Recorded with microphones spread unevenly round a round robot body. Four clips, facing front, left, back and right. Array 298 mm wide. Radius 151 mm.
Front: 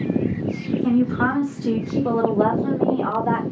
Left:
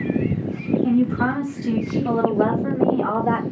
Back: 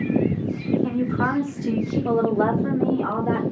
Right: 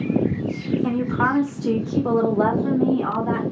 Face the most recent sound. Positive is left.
turn(degrees=60)